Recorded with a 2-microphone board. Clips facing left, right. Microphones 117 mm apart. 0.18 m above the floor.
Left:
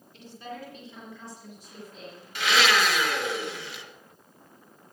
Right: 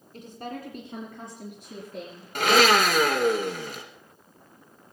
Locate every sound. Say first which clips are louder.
0.1 s a woman speaking: right 3 dB; 45° right (ahead or behind), 2 m; by 2.2 s 55° right (ahead or behind), 4.5 m
2.4 s a blender: right 5 dB; 50° right (ahead or behind), 1.7 m